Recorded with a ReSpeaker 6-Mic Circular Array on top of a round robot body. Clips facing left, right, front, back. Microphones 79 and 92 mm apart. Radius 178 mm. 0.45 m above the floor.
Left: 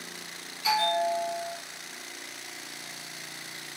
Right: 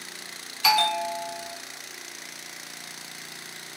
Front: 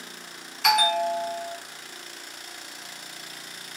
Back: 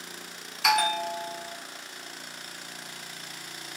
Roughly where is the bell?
Right.